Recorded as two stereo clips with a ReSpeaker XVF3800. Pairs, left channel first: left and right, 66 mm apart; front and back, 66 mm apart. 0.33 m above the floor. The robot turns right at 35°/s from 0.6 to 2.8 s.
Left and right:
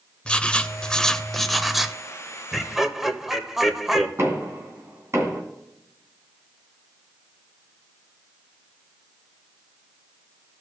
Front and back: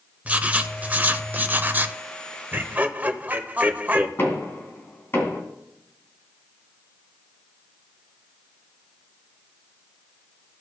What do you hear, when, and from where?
0.2 s writing: 145° left, 0.5 m; by 2.0 s 170° right, 0.5 m
2.5 s laughter: straight behind, 0.9 m; by 4.1 s 170° right, 0.9 m
4.2 s knocking: 50° right, 3 m